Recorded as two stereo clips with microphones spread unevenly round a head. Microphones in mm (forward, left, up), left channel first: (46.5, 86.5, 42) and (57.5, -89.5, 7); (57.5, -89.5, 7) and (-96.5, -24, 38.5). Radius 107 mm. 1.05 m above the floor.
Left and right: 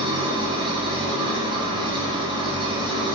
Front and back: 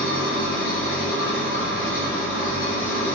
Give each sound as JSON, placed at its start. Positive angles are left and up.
{"t": 0.0, "sound": "an engine running", "azimuth_deg": -20, "distance_m": 1.3}